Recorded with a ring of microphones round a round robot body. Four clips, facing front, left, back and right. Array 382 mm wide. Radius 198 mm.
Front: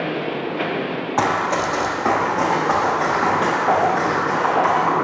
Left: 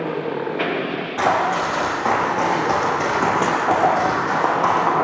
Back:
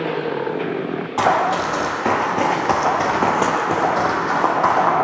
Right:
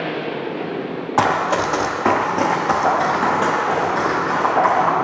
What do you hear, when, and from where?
1.2 s running footsteps: 75° right, 1.0 m; by 4.9 s 145° left, 1.6 m